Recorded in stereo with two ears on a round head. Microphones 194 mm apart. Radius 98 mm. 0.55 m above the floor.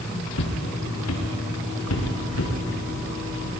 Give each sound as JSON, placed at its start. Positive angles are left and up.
{"t": 0.3, "sound": "footsteps", "side_deg": 70, "distance_m": 4.0}